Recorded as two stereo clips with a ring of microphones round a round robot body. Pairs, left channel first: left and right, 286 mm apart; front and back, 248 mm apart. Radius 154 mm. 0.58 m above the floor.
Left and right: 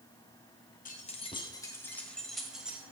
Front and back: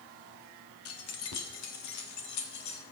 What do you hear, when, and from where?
0.8 s keys jangling: 25° left, 1.3 m; by 2.8 s 5° right, 2 m